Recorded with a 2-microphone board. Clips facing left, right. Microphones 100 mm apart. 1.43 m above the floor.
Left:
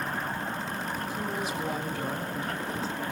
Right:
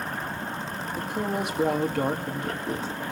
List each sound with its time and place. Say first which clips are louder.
1.0 s a woman speaking: right 8 dB; 65° right (ahead or behind), 2.5 m